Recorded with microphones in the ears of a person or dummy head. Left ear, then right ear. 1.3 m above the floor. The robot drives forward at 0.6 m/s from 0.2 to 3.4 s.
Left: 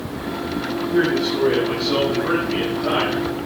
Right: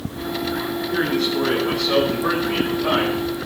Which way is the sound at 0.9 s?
60° right (ahead or behind).